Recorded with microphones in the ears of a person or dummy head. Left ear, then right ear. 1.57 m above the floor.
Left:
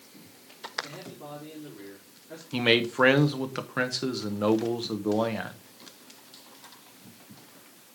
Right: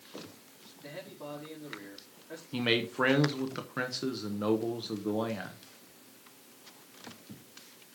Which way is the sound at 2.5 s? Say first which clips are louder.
Left 6 dB; 15° left (ahead or behind).